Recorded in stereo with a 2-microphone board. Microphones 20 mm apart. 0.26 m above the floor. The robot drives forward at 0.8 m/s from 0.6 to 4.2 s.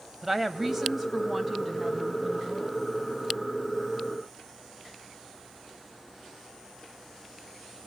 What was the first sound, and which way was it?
A woman speaking, 15° right (ahead or behind).